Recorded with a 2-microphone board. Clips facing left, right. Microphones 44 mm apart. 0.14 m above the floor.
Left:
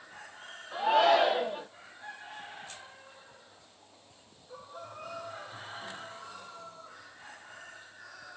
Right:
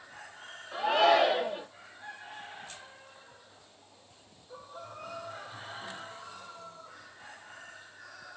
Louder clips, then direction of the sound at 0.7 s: Even; centre (ahead or behind).